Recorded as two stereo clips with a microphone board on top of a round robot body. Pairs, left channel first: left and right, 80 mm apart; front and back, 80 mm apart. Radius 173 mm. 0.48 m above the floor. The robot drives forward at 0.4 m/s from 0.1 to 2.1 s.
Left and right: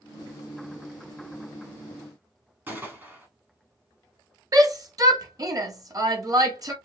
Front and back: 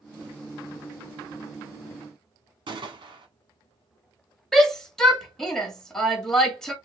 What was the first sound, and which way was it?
A gunshot, 160° right.